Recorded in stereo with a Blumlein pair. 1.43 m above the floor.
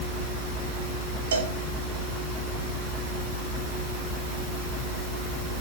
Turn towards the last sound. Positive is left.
turn(degrees=-60)